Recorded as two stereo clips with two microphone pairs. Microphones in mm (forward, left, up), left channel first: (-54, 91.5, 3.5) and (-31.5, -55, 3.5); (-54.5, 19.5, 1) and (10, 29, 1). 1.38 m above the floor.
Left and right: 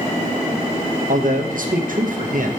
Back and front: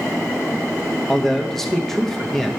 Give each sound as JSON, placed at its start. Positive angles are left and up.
{"t": 1.1, "sound": "a man speaking", "azimuth_deg": -90, "distance_m": 0.9}